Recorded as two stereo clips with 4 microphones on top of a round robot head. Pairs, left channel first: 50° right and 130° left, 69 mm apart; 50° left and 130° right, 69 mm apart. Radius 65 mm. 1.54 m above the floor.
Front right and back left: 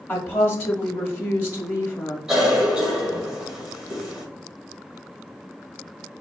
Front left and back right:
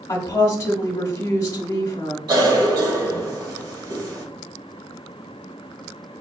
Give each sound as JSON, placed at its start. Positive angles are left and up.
{"t": 0.1, "sound": "a woman speaking", "azimuth_deg": 5, "distance_m": 0.7}
{"t": 2.3, "sound": "a cough", "azimuth_deg": -155, "distance_m": 1.9}